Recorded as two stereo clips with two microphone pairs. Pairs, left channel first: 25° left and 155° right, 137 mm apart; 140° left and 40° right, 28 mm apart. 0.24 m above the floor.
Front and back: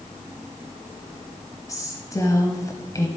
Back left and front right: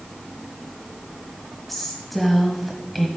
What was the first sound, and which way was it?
A woman speaking, 60° left.